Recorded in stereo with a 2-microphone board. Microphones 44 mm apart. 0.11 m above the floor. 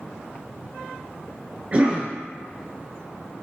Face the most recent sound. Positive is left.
turn(degrees=-30)  # may be behind; listen again after turning